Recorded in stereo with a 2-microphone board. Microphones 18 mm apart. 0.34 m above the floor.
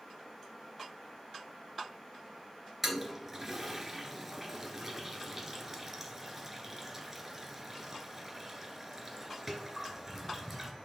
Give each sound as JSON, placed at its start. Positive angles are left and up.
{"t": 2.8, "sound": "a toilet flushing", "side_deg": -15, "distance_m": 1.7}